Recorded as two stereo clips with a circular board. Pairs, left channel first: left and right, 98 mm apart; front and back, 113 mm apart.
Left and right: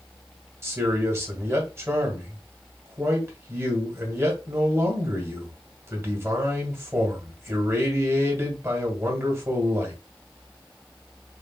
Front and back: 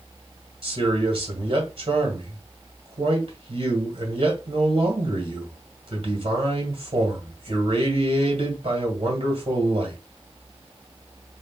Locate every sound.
0.6 s a man speaking: 150° right, 1.9 m